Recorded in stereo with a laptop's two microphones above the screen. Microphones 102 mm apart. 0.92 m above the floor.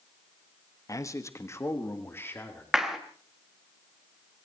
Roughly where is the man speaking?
Left.